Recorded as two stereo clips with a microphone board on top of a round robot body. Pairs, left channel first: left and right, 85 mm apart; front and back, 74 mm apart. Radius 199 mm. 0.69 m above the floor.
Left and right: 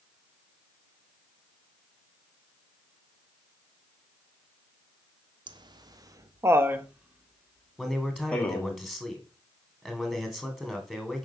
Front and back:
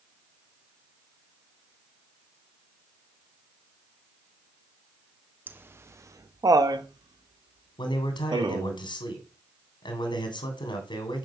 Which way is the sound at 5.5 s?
115° right.